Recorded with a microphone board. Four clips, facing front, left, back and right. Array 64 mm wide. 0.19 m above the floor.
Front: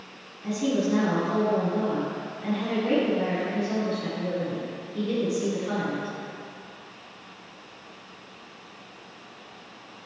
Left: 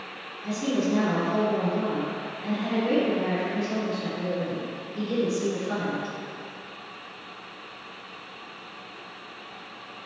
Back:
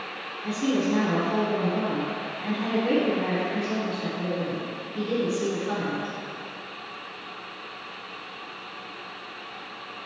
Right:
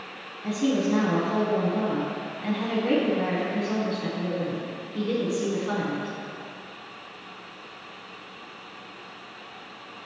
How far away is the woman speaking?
About 1.5 m.